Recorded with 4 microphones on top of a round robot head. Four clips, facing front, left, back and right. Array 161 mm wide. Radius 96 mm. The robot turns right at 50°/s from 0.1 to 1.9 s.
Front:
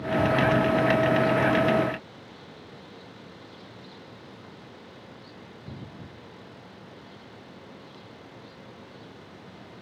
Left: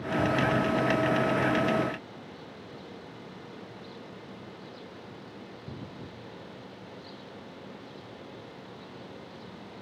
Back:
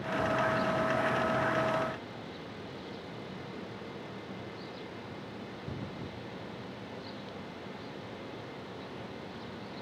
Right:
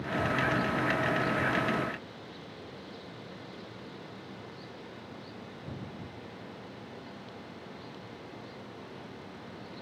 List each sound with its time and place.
Only background noise.